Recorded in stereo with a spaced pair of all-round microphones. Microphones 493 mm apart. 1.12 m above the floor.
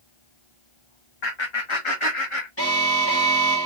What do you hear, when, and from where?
1.2 s laughter: 55° left (ahead or behind), 0.9 m; by 2.5 s 80° left, 1.8 m
2.6 s an alarm: 30° left (ahead or behind), 2.5 m